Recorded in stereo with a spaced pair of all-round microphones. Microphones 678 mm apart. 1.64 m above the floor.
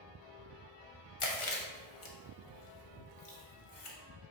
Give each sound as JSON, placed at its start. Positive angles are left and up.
{"t": 1.2, "sound": "chewing", "side_deg": 50, "distance_m": 0.8}